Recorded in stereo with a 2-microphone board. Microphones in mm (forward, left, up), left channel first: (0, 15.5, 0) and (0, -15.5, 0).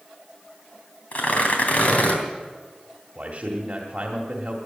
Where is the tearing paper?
45° left (ahead or behind), 3 m.